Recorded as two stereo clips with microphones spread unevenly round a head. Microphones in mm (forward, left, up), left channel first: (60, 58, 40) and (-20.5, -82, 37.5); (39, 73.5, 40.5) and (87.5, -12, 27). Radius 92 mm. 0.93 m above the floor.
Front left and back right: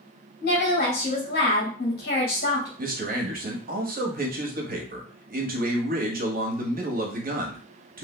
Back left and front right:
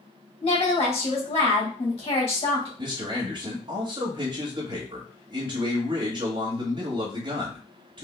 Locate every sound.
0.4 s a woman speaking: 90° left, 1.9 m
2.8 s a man speaking: 95° right, 1.1 m